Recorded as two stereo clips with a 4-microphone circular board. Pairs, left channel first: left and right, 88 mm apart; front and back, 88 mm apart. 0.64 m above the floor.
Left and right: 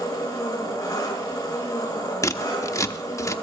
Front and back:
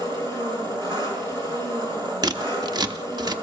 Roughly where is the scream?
No scream in this recording.